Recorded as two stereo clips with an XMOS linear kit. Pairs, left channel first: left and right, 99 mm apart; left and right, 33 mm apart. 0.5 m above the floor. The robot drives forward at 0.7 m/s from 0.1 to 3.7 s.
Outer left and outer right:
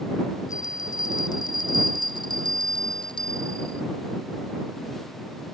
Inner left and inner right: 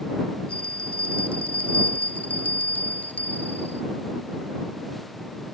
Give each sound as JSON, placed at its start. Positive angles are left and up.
{"t": 0.5, "sound": "a bell", "side_deg": 40}